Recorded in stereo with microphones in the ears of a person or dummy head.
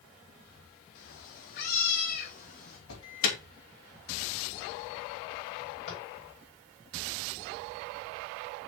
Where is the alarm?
80° left, 3.5 m.